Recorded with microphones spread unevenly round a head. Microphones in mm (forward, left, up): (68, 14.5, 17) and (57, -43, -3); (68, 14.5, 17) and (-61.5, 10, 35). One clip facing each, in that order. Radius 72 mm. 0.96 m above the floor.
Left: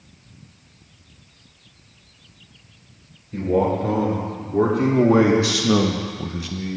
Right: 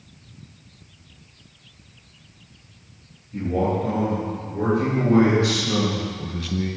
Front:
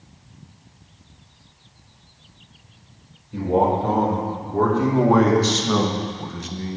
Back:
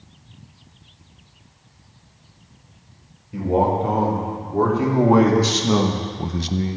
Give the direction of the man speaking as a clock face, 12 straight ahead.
9 o'clock.